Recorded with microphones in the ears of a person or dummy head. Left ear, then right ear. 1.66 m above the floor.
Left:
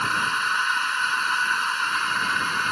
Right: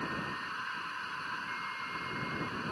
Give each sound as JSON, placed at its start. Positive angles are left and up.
{"t": 0.0, "sound": "a machine running", "side_deg": 60}